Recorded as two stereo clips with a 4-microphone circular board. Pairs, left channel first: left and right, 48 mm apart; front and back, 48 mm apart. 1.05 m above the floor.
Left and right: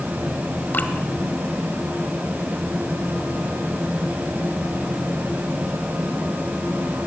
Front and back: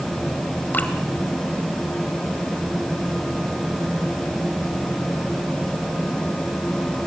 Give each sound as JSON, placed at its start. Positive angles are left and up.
{"t": 0.7, "sound": "dripping", "azimuth_deg": 50, "distance_m": 1.7}